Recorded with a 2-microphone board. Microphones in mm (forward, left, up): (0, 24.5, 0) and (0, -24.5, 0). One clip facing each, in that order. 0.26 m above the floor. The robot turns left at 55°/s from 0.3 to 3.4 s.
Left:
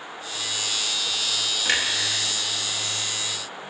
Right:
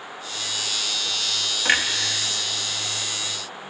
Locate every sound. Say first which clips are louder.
1.6 s a clunk: right 4 dB; 30° right (ahead or behind), 0.7 m; by 1.8 s 20° right (ahead or behind), 0.7 m